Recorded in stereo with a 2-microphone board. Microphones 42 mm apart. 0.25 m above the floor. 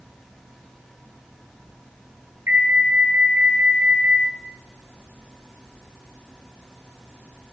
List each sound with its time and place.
2.5 s an alarm: 70° right (ahead or behind), 5 m